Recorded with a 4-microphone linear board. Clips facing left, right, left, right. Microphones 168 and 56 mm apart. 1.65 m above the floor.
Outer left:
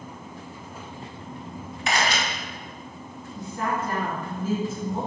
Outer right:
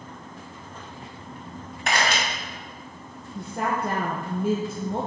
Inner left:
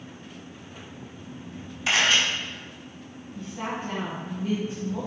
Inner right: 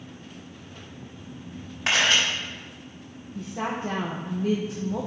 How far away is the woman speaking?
About 1.0 m.